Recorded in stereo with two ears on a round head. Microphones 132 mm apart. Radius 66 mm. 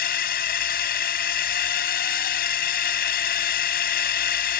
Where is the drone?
70° left (ahead or behind).